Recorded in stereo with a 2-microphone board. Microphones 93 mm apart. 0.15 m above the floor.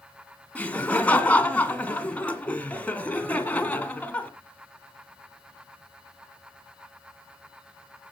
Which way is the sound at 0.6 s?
15° left (ahead or behind).